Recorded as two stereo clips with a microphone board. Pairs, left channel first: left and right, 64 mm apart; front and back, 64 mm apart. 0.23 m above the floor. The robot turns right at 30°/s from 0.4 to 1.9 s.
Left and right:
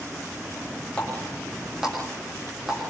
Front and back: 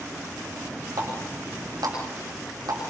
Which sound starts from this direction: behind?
A running tap, at 1.0 s.